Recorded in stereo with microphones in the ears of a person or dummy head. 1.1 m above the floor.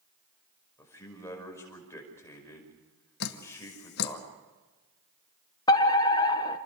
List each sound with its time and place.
0.8 s a man speaking: 10° left (ahead or behind), 5.5 m
3.2 s dripping: 60° left (ahead or behind), 1.4 m
5.7 s a fire alarm: 20° left (ahead or behind), 1.2 m